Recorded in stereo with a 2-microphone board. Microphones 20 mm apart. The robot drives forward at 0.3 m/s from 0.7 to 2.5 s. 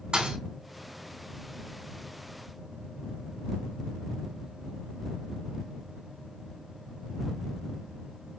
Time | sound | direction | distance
0.1 | a thud | 55° right (ahead or behind) | 3.5 m